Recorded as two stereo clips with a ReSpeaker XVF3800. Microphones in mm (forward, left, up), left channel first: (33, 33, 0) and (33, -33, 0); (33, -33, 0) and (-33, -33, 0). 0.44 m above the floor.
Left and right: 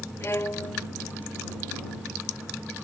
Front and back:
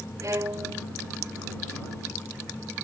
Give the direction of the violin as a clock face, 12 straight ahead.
7 o'clock.